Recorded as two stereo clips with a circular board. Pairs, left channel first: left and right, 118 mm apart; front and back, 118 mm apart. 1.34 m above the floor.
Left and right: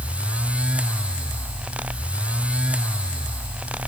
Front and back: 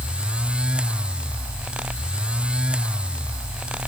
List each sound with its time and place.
Only background noise.